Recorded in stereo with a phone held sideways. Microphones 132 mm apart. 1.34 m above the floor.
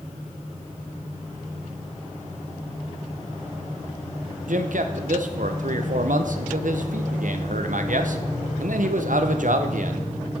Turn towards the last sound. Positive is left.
turn(degrees=-75)  # may be behind; listen again after turning